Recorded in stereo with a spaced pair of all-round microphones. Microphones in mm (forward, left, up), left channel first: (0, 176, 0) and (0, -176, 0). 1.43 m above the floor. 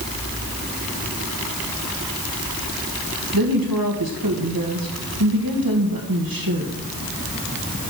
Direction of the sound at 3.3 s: 75° right (ahead or behind).